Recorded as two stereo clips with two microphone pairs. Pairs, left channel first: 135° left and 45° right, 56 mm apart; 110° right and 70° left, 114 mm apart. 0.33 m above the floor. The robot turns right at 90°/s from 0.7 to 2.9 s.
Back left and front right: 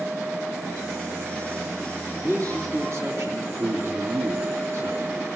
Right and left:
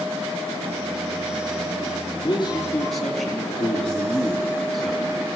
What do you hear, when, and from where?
2.2 s a man speaking: 85° right, 3.5 m; by 5.3 s 20° right, 3.5 m